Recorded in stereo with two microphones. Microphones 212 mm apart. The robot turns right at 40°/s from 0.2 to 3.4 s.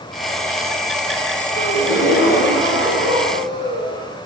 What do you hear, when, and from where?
1.5 s a gasp: 50° left, 2 m; by 4.2 s 125° left, 2 m